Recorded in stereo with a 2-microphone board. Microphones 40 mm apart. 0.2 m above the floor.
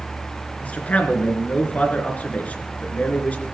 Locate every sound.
0.6 s a man speaking: 40° left (ahead or behind), 3 m